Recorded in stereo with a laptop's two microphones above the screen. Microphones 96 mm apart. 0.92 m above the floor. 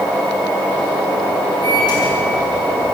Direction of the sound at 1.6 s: 50° left (ahead or behind).